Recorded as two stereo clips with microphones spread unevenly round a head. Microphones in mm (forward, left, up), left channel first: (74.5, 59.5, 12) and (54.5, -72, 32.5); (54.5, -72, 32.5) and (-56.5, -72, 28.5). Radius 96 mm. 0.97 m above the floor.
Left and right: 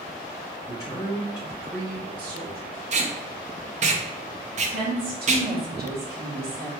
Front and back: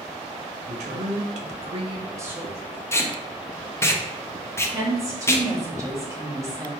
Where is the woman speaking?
115° right, 1.6 m.